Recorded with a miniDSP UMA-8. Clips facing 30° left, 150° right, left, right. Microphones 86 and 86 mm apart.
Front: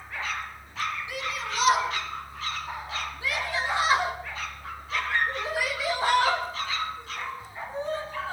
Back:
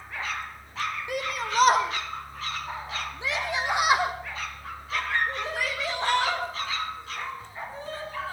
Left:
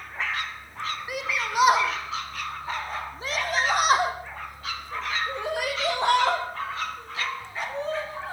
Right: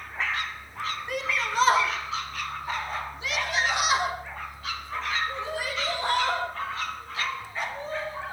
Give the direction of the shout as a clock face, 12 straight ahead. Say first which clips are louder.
Back 3 dB, right 1 dB; 6 o'clock.